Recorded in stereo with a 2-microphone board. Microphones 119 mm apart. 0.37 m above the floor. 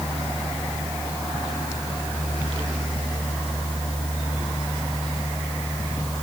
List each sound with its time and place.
Only background noise.